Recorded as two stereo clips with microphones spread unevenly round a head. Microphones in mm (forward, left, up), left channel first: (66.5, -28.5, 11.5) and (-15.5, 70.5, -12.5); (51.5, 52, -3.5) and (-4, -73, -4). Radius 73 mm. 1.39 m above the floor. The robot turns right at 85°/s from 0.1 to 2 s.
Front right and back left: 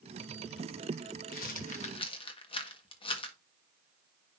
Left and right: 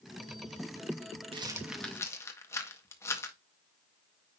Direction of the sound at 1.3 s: 65° right.